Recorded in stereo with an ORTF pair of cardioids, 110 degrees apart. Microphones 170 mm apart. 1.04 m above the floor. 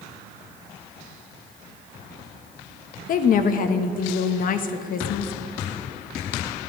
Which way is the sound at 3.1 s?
55° left.